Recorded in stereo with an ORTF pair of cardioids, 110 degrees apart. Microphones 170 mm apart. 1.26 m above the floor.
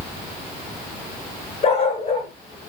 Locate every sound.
1.6 s a dog barking: 35° left, 6 m